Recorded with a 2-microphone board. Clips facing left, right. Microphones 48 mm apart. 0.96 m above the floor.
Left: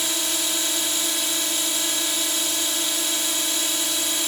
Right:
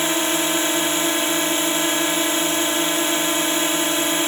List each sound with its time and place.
0.0 s a drone: 35° right (ahead or behind)